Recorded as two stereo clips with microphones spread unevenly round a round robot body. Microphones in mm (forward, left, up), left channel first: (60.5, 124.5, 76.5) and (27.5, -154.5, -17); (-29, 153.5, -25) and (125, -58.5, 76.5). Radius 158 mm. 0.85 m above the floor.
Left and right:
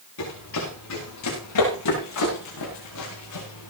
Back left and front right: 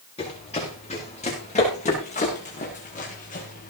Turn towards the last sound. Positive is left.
turn(degrees=65)